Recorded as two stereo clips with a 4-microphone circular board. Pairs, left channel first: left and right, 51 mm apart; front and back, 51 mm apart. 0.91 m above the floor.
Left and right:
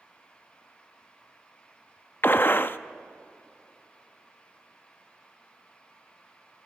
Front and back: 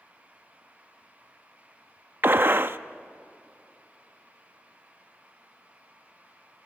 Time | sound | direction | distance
2.2 | a gunshot | 135° left | 0.5 m